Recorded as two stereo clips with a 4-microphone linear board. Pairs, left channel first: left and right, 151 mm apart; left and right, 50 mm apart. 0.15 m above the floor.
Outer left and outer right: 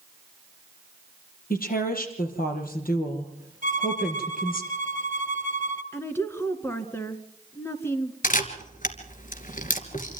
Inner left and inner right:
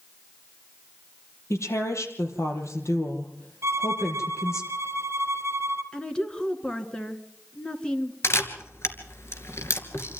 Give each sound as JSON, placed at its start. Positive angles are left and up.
{"t": 1.5, "sound": "a woman speaking", "side_deg": 70, "distance_m": 5.0}
{"t": 3.6, "sound": "a violin", "side_deg": -60, "distance_m": 1.9}
{"t": 5.9, "sound": "a woman speaking", "side_deg": 15, "distance_m": 2.5}
{"t": 8.2, "sound": "a camera shutter", "side_deg": 60, "distance_m": 2.5}